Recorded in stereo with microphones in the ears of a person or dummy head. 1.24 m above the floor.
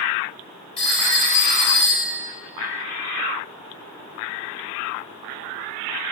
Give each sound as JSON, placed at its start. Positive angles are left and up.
{"t": 0.8, "sound": "a phone ringing", "side_deg": 35, "distance_m": 3.0}